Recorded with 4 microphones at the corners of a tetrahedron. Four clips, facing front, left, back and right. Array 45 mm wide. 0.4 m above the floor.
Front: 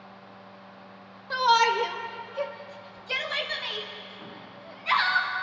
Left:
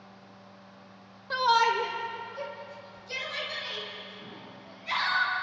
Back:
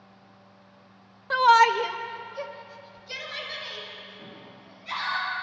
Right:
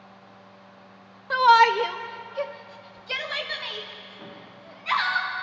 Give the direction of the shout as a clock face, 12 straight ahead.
4 o'clock.